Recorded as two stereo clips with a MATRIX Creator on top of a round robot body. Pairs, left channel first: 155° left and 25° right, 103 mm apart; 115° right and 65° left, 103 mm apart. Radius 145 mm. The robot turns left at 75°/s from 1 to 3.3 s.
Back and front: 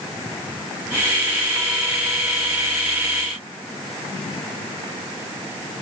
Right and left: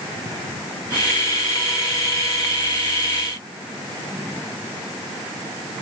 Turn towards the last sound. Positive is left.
No sound to turn to.